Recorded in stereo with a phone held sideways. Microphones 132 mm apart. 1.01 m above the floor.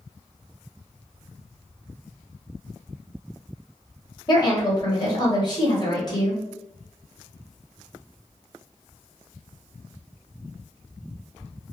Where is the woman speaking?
30° left (ahead or behind), 1.1 m.